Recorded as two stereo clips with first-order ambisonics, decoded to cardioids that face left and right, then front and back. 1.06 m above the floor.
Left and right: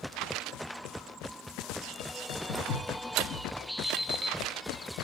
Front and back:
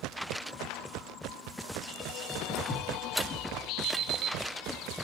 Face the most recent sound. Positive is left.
turn(degrees=-155)